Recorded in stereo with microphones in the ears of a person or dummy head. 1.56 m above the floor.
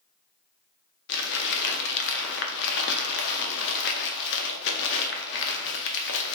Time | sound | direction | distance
1.1 | crumpling | 50° left (ahead or behind) | 0.6 m